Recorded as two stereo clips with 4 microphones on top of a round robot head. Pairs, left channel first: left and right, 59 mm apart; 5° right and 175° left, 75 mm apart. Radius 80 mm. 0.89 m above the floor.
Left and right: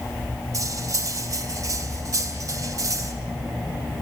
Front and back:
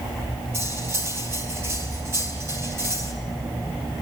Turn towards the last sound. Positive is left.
turn(degrees=-120)